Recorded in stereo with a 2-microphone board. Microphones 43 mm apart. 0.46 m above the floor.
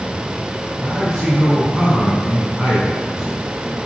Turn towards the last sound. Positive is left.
turn(degrees=-10)  # may be behind; listen again after turning